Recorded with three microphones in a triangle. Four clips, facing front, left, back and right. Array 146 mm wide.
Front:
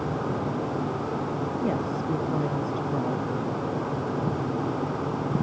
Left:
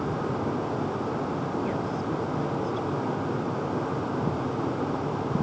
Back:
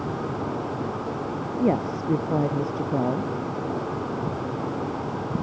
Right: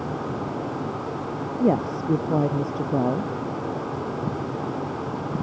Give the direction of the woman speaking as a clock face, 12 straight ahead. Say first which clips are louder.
Right 7 dB, back 7 dB; 4 o'clock.